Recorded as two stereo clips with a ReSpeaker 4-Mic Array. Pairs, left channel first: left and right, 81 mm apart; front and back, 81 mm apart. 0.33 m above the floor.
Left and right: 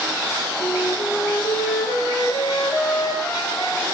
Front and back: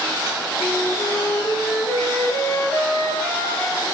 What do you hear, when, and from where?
0.6 s a flute: 60° left, 8 m